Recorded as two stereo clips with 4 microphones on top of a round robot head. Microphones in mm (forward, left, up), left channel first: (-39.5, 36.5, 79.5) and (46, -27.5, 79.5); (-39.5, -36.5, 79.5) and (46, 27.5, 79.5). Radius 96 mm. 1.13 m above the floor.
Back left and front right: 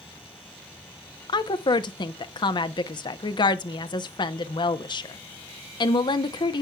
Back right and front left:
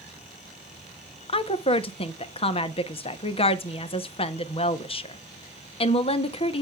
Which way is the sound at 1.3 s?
170° right.